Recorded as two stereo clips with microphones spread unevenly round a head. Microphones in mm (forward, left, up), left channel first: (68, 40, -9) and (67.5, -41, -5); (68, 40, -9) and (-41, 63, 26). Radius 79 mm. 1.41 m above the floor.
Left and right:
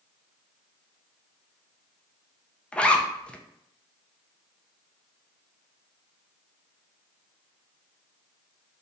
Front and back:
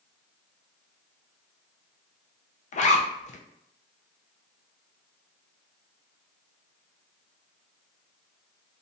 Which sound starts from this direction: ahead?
A zipper, at 2.7 s.